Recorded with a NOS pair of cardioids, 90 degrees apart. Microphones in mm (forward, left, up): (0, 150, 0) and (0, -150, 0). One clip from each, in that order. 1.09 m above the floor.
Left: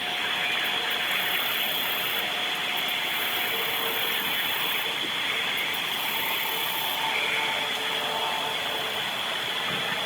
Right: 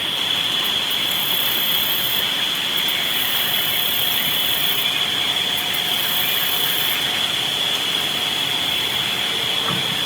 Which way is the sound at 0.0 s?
50° right.